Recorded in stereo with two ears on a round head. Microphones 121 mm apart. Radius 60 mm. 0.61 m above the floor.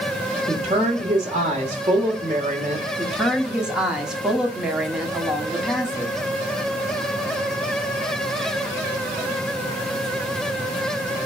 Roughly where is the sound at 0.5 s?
Right.